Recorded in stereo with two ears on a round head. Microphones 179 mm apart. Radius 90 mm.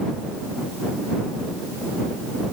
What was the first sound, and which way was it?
Only background noise.